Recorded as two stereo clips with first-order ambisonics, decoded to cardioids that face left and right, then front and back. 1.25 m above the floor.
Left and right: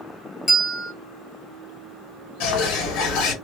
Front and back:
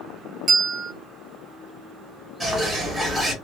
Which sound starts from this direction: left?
A bird, at 2.4 s.